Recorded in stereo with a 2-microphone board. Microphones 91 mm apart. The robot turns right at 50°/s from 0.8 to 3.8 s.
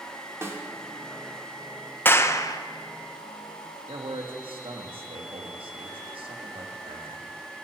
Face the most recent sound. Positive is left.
turn(degrees=-70)  # may be behind; listen again after turning